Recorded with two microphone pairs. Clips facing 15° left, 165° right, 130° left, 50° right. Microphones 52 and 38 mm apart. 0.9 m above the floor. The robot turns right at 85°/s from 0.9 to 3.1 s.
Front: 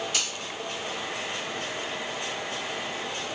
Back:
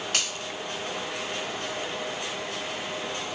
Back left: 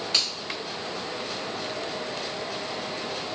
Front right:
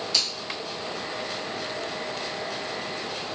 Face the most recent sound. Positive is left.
turn(degrees=-5)